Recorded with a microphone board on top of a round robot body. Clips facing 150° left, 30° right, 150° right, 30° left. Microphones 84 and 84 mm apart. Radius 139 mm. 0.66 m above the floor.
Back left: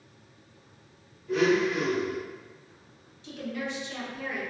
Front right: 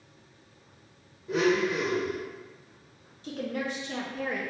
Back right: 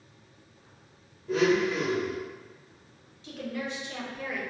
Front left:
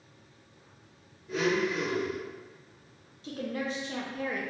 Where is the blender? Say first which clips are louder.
Back left 1 dB, back right 4 dB; 100° right, 0.6 m.